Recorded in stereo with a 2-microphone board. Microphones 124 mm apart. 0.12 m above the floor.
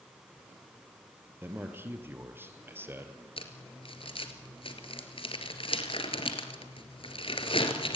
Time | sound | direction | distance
1.4 | a man speaking | 20° right (ahead or behind) | 2.5 m
3.4 | crumpling | 50° left (ahead or behind) | 2.5 m